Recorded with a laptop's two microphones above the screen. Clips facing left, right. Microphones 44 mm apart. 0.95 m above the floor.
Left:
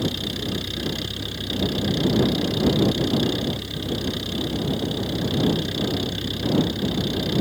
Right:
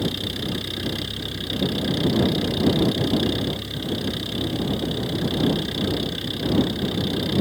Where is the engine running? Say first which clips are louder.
Even; 5° right (ahead or behind).